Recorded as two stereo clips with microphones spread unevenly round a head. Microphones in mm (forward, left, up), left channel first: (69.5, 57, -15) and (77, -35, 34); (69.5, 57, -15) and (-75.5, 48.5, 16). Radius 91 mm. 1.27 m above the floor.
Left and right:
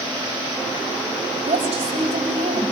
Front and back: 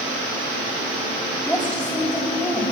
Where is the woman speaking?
80° right, 8.5 m.